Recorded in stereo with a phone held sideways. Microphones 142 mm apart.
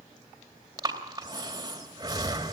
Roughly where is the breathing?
Right.